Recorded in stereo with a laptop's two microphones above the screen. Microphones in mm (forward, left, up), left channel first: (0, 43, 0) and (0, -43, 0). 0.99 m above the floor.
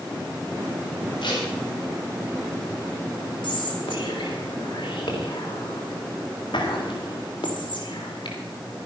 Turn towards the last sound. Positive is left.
turn(degrees=75)  # may be behind; listen again after turning